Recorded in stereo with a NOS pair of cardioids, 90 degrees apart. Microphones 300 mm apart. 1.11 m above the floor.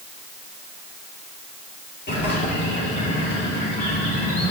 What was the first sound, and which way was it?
A bird, 35° left.